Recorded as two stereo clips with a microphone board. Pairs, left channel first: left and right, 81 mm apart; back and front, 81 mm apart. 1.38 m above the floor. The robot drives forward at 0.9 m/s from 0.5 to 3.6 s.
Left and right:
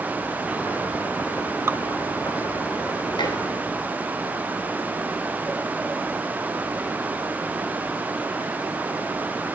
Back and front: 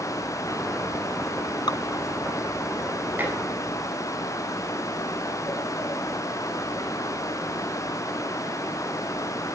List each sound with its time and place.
1.7 s dripping: 150° right, 1.2 m
3.2 s dishes clattering: 65° left, 9 m; by 3.4 s 70° left, 9 m